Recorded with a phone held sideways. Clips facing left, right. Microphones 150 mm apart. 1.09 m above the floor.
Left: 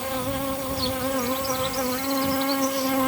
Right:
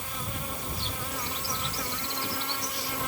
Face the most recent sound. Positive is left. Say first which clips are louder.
# left 11 dB
turn(degrees=80)